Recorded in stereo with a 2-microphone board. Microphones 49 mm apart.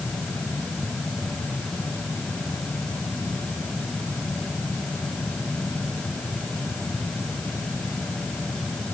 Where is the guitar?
No guitar in this recording.